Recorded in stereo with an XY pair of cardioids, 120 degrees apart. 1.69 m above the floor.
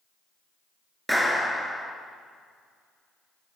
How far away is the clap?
About 2.5 m.